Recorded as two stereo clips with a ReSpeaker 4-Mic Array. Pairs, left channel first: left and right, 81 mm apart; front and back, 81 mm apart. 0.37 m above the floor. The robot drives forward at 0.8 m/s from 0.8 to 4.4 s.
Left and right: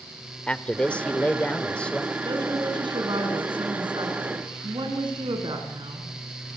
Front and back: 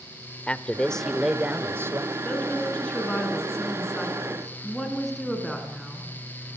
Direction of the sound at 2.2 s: 70° right.